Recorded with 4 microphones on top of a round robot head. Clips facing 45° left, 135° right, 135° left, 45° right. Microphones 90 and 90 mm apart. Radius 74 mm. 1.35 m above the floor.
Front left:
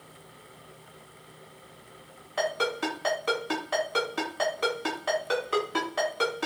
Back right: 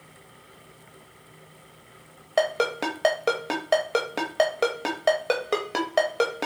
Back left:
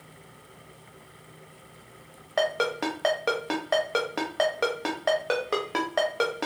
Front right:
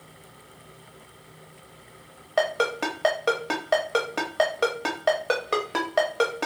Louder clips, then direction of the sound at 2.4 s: Back right 5 dB, front right 2 dB; 140° right.